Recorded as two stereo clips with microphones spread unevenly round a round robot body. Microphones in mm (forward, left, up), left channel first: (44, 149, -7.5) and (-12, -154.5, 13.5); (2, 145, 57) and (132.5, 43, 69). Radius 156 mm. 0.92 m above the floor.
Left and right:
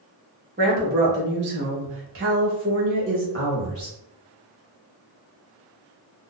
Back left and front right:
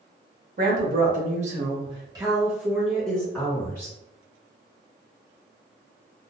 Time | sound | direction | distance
0.6 | a woman speaking | 40° right | 1.3 m